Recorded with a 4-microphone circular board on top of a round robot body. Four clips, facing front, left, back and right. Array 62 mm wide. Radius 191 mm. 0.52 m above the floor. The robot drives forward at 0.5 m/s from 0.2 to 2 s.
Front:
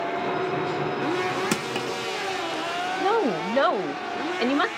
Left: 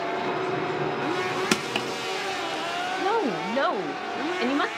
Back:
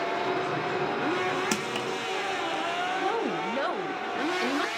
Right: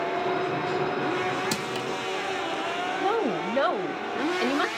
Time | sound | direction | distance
1.5 | crushing | 80° left | 1.1 m
3.0 | a woman speaking | 20° left | 1.0 m